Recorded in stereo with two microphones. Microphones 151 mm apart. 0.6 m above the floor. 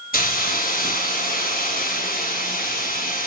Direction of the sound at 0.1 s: 75° left (ahead or behind).